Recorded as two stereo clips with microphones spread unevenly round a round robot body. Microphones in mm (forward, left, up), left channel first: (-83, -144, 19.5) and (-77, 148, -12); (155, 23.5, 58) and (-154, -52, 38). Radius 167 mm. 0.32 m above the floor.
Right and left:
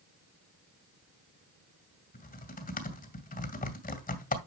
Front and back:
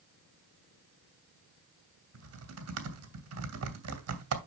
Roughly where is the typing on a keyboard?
Behind right.